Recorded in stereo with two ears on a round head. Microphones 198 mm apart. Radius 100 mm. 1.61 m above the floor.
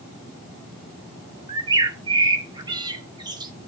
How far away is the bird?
About 1.1 m.